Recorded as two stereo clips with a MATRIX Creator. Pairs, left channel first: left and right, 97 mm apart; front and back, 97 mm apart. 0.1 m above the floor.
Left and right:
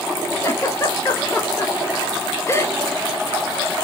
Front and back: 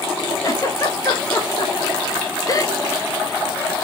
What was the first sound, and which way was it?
A giggle, 40° left.